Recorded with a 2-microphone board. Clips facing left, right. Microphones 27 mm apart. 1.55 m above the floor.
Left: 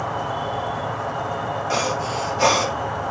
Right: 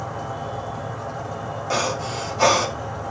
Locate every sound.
0.0 s an insect: 45° left (ahead or behind), 1.4 m
1.7 s breathing: 5° right (ahead or behind), 3.5 m